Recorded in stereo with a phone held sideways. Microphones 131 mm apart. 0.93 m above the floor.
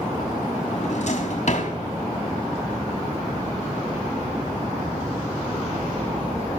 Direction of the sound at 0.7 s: 60° left (ahead or behind).